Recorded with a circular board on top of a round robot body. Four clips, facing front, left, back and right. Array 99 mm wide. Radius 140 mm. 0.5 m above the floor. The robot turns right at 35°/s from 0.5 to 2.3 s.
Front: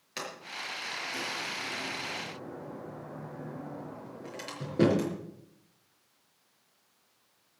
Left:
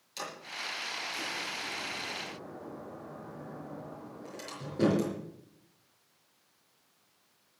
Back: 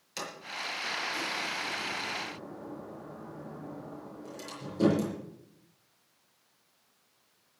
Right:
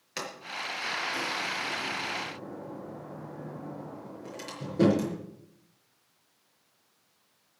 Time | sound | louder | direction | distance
0.2 | a sliding door | right 4 dB, back 1 dB | 65° right | 5.5 m